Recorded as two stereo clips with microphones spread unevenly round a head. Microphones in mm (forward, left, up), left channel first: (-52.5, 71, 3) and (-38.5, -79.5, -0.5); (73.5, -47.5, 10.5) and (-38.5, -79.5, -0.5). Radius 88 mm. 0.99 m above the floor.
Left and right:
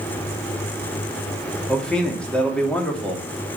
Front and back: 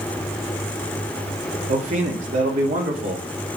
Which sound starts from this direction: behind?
A man speaking, at 1.7 s.